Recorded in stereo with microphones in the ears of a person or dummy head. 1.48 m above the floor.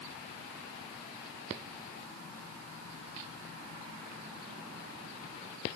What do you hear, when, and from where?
Only background noise.